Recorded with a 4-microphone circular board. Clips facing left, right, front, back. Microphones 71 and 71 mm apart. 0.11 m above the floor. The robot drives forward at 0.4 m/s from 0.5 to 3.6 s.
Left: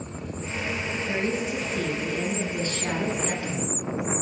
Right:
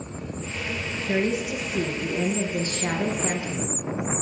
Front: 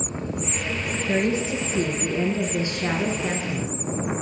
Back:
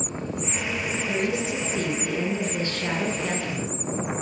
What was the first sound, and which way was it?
A woman speaking, 20° right.